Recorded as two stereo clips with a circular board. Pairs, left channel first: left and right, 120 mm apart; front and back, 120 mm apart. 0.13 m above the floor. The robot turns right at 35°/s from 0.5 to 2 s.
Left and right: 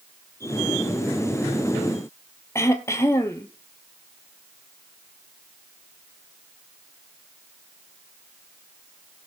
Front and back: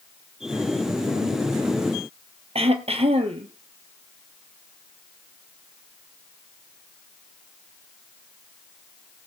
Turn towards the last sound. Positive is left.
turn(degrees=155)